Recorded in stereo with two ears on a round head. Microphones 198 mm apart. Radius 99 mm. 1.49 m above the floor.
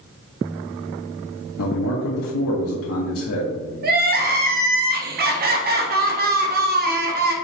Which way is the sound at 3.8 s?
45° right (ahead or behind).